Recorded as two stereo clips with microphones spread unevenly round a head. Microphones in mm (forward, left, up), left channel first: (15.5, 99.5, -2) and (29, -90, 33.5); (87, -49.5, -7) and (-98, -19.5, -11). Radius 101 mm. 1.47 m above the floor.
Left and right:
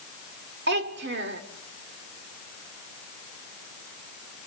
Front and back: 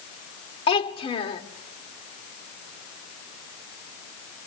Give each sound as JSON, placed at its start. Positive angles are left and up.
{"t": 0.7, "sound": "a child speaking", "azimuth_deg": -70, "distance_m": 2.0}